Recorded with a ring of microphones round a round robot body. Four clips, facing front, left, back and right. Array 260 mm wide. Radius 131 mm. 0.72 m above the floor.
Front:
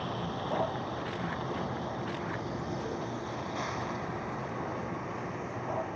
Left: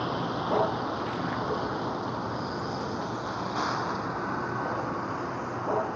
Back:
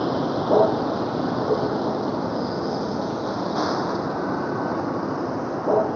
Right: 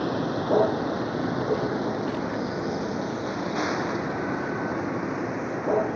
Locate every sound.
0.0 s a vehicle: 155° right